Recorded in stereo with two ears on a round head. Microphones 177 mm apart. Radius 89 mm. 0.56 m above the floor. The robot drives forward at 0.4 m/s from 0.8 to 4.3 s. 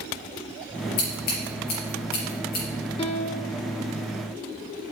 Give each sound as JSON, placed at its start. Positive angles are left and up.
{"t": 1.0, "sound": "scissors", "side_deg": 50, "distance_m": 5.0}
{"t": 3.0, "sound": "a piano", "side_deg": 25, "distance_m": 0.9}